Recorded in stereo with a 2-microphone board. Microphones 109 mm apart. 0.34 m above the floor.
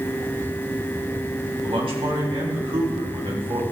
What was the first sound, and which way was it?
A man speaking, 55° right (ahead or behind).